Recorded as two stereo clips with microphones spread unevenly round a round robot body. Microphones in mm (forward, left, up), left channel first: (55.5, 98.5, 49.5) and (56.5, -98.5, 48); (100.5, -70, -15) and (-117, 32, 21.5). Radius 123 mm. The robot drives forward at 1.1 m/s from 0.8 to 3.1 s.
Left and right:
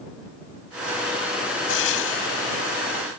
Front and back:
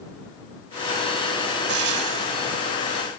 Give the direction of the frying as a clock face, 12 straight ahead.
8 o'clock.